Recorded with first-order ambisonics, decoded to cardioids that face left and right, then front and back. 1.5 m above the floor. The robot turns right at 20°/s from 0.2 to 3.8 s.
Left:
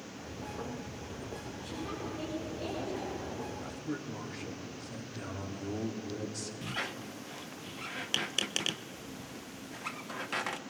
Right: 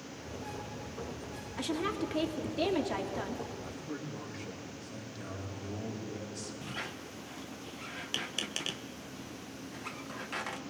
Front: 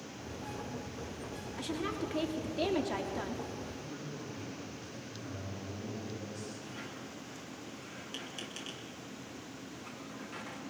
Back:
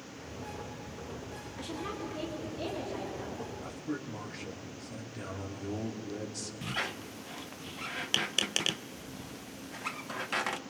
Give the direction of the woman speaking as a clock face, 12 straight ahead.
3 o'clock.